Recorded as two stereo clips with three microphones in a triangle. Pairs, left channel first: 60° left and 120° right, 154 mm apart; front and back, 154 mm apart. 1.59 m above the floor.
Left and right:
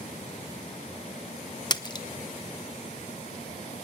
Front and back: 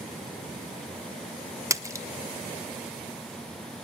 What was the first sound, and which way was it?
A splash, 115° left.